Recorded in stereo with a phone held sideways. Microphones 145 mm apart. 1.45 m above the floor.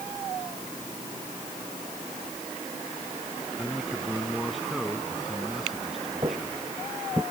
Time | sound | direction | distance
3.6 | a man speaking | centre (ahead or behind) | ?
6.2 | footsteps | 30° right (ahead or behind) | ?